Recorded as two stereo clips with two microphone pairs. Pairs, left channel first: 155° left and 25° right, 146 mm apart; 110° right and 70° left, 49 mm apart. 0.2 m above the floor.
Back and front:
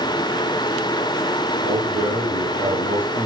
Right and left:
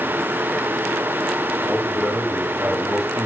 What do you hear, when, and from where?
1.6 s a man speaking: 5° left, 7.5 m